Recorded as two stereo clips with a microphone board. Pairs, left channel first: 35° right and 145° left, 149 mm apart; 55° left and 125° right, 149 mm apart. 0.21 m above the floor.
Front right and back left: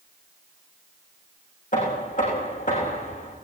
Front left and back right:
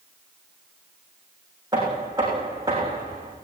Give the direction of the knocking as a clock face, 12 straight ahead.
2 o'clock.